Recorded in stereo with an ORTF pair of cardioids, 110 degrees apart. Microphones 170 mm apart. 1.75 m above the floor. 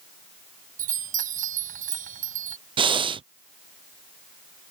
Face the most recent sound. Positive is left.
turn(degrees=-30)